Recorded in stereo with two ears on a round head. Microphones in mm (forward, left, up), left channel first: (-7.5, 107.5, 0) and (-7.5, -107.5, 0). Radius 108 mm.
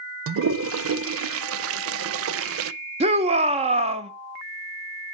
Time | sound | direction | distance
0.3 | a toilet flushing | 60° right (ahead or behind) | 0.5 m
3.0 | a shout | 25° right (ahead or behind) | 1.0 m